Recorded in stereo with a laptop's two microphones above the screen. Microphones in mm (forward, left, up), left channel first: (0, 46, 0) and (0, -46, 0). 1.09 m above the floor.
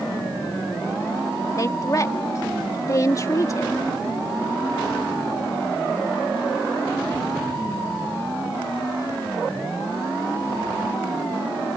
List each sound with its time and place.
1.6 s a woman speaking: 35° left (ahead or behind)